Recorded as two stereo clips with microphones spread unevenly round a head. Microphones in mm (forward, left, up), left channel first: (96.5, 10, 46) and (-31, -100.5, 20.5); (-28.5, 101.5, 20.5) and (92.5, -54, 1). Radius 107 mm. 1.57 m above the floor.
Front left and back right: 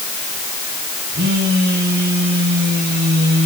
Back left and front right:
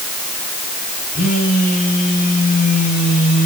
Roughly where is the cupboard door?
No cupboard door in this recording.